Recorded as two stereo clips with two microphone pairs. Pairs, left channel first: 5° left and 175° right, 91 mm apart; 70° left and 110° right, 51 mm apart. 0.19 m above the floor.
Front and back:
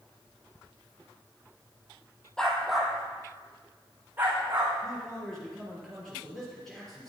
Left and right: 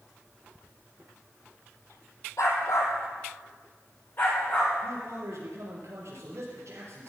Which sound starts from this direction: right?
A man speaking, at 4.8 s.